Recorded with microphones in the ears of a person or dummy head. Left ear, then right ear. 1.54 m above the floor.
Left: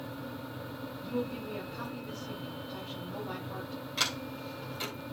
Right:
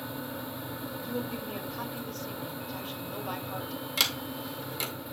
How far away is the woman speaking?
About 3 m.